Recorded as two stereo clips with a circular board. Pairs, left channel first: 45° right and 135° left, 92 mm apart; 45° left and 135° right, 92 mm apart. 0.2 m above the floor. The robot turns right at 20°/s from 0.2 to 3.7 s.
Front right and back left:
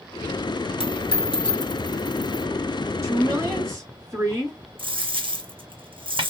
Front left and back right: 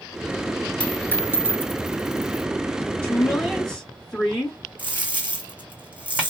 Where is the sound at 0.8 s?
30° right, 0.5 m; by 2.5 s straight ahead, 0.5 m.